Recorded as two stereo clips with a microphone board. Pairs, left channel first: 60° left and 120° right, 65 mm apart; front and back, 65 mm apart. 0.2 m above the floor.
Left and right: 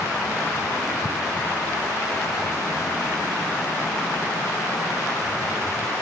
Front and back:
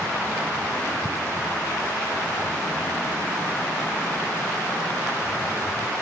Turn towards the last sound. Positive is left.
No sound to turn to.